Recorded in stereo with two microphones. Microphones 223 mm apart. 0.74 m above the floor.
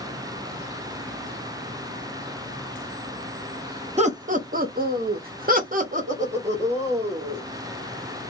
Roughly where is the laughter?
Right.